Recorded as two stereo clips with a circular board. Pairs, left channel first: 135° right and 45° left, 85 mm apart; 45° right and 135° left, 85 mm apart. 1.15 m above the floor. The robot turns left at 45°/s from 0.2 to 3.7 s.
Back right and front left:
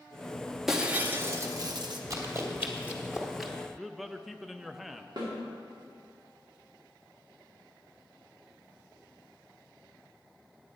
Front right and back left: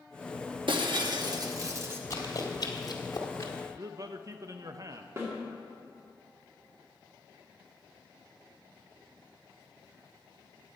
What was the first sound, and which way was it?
Breaking glass, 130° left.